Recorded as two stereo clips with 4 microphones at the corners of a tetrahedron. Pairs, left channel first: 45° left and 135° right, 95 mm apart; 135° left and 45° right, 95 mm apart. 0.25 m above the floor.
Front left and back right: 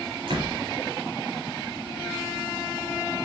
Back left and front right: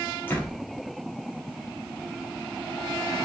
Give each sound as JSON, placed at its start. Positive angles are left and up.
{"t": 0.3, "sound": "a door slam", "azimuth_deg": -155, "distance_m": 4.5}